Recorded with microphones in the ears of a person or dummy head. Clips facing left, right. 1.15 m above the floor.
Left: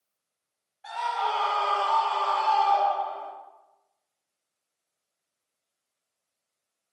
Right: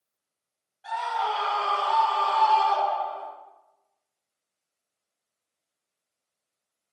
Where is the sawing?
No sawing in this recording.